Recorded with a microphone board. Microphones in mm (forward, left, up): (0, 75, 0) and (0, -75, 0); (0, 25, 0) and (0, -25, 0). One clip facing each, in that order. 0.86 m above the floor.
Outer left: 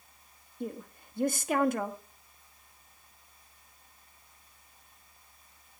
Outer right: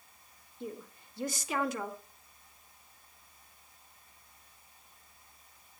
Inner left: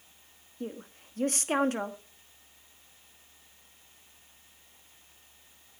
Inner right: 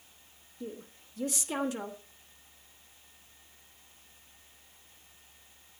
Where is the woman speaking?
50° left (ahead or behind), 1.1 m.